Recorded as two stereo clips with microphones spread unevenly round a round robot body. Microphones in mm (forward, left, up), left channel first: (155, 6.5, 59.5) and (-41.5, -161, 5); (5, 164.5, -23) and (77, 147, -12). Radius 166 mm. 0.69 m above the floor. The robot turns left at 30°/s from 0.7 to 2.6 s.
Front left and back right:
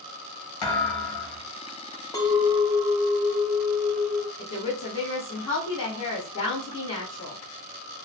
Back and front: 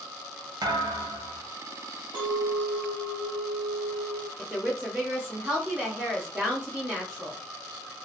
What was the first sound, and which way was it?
A thud, 20° left.